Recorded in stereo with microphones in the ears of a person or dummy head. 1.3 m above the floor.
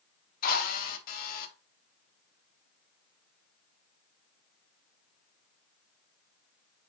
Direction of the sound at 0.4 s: 50° left (ahead or behind).